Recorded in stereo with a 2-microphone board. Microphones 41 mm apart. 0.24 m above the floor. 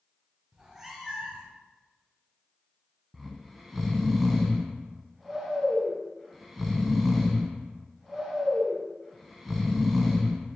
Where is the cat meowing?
15° right (ahead or behind), 0.7 m; by 1.6 s centre (ahead or behind), 1.4 m.